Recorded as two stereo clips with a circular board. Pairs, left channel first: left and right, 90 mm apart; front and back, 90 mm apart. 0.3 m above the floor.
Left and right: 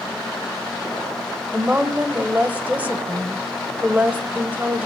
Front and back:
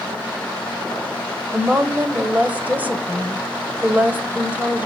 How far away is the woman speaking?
About 1.3 m.